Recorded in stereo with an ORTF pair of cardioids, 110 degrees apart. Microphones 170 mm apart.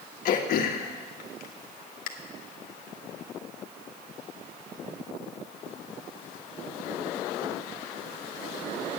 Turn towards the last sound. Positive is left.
turn(degrees=60)